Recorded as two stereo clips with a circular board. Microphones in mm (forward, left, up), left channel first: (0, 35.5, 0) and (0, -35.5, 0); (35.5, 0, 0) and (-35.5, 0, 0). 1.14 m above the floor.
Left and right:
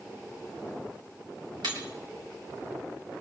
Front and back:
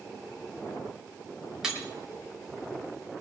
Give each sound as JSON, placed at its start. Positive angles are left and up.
{"t": 1.6, "sound": "breaking glass", "azimuth_deg": -95, "distance_m": 4.5}